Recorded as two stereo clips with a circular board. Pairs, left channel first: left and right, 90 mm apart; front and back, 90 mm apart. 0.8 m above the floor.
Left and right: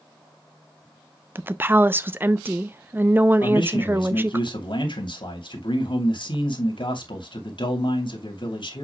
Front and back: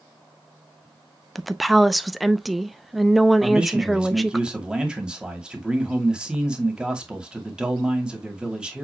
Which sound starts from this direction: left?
A man speaking, at 3.4 s.